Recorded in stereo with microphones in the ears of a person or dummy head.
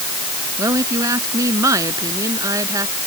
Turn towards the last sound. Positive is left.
turn(degrees=-20)  # may be behind; listen again after turning